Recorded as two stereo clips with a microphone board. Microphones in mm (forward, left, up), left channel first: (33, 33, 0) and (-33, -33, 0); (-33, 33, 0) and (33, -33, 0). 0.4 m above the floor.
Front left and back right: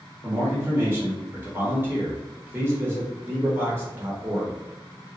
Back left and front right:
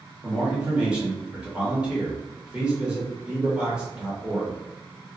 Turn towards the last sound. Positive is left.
turn(degrees=-110)